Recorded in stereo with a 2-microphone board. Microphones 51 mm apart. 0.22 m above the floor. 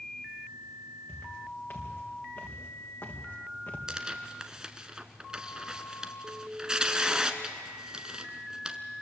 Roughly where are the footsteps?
Left.